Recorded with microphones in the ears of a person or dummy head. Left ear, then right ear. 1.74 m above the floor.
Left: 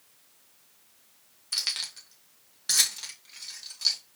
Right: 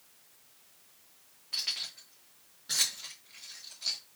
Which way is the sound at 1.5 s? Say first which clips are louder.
Left 4 dB; 60° left (ahead or behind).